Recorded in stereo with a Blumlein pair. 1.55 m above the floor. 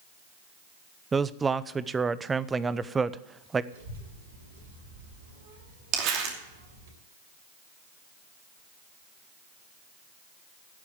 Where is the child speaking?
65° right, 6.5 m.